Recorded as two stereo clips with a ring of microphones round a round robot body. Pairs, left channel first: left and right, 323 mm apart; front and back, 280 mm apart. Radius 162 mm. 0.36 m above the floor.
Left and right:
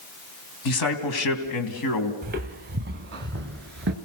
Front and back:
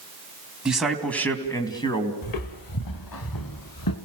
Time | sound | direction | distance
0.7 | a man speaking | 95° left | 3 m
2.2 | footsteps | 25° right | 1.8 m